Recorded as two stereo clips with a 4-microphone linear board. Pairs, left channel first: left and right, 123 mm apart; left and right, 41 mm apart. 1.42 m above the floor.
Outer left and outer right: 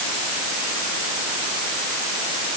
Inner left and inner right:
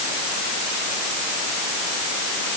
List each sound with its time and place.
Only background noise.